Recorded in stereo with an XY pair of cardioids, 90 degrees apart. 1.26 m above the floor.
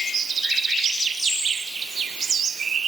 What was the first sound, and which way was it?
Only background noise.